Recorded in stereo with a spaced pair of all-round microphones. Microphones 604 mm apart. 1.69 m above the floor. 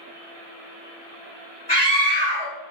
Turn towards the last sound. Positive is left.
turn(degrees=40)  # may be behind; listen again after turning